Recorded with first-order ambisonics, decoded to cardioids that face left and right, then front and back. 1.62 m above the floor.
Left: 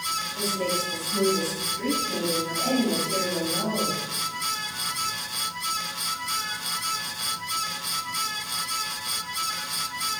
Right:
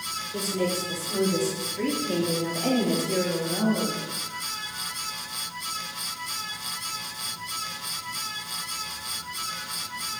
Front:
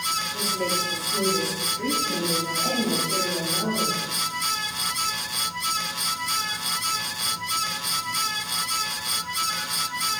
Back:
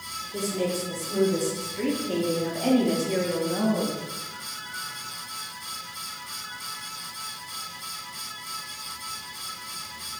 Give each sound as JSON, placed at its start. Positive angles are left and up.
{"t": 0.3, "sound": "a woman speaking", "azimuth_deg": -130, "distance_m": 6.0}